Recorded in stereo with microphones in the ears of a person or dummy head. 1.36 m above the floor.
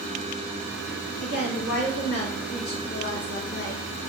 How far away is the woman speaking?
About 1.7 m.